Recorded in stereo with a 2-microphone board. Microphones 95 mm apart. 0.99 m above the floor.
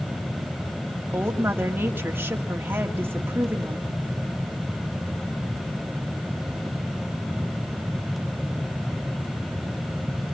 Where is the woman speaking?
20° right (ahead or behind), 2 m.